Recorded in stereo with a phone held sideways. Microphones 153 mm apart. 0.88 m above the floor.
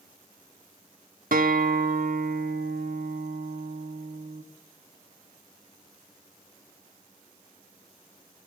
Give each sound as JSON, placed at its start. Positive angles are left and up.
{"t": 1.3, "sound": "a guitar", "side_deg": -65, "distance_m": 1.4}